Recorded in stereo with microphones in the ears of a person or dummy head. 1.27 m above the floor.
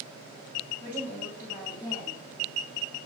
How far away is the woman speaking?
About 1.7 m.